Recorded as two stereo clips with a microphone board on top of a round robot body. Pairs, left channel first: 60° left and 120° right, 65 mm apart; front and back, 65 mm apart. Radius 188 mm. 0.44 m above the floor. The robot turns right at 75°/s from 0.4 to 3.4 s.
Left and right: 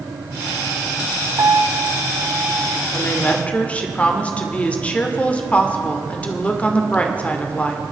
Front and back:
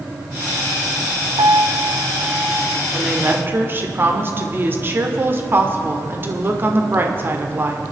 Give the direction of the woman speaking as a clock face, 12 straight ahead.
9 o'clock.